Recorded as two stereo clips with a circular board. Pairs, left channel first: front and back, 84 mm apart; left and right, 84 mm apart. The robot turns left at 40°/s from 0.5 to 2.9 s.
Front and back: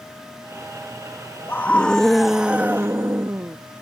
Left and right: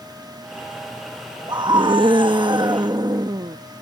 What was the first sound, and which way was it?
A scream, 60° right.